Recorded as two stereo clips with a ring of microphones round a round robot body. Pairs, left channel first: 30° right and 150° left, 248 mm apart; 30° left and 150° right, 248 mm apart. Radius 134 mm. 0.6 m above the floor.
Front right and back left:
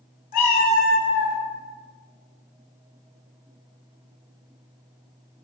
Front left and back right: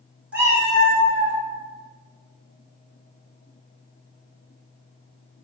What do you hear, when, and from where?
0.3 s a cat meowing: 70° right, 0.6 m; by 1.4 s 130° right, 0.9 m